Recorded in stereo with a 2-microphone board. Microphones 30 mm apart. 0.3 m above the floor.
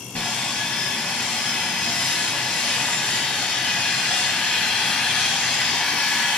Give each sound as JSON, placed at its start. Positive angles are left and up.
{"t": 0.1, "sound": "sawing", "side_deg": 55, "distance_m": 0.9}